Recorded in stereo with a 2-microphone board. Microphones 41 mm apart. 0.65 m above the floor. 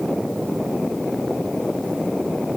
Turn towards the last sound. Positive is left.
No sound to turn to.